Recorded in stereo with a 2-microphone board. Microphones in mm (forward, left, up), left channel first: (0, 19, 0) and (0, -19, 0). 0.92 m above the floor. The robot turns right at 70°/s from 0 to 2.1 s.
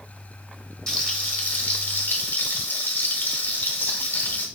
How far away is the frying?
About 1.2 m.